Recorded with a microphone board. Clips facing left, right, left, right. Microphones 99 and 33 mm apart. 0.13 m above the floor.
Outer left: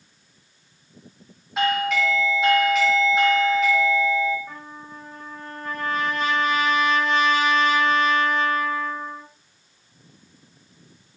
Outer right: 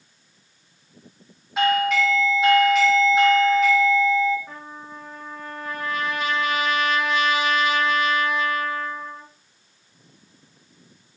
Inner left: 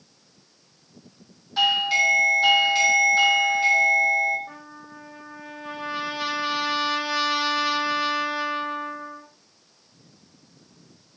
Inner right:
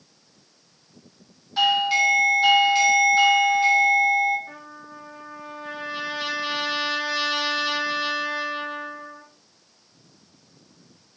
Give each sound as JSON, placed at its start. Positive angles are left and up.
{"t": 1.6, "sound": "a doorbell", "side_deg": 0, "distance_m": 1.9}
{"t": 4.5, "sound": "a trumpet", "side_deg": -5, "distance_m": 3.0}